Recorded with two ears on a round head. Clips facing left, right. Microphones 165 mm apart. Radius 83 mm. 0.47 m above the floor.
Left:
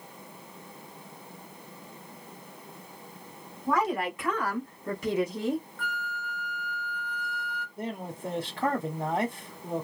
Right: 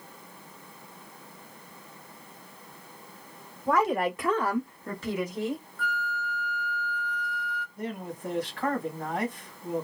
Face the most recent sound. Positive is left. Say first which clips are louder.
# even
turn(degrees=20)  # may be behind; listen again after turning